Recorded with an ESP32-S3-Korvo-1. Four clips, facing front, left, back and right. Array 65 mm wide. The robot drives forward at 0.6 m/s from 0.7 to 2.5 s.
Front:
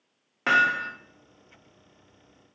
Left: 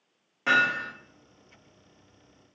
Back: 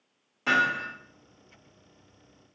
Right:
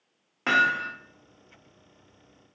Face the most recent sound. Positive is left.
turn(degrees=-135)